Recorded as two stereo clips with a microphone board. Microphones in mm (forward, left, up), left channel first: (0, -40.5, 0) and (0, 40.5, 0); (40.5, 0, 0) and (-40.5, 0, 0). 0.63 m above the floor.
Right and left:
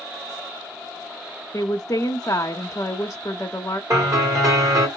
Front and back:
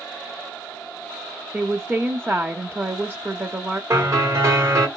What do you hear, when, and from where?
1.5 s a woman speaking: 120° right, 0.9 m
3.9 s a piano: 130° left, 3 m